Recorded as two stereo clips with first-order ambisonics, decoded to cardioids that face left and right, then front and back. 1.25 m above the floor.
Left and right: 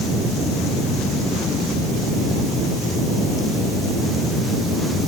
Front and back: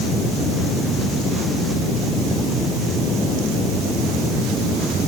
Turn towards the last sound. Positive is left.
No sound to turn to.